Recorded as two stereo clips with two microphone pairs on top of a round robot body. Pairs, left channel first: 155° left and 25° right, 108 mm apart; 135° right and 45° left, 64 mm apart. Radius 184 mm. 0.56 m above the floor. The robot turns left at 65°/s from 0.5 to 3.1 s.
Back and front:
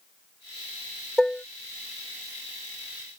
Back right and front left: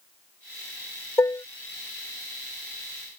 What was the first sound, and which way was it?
Dishes clattering, 110° right.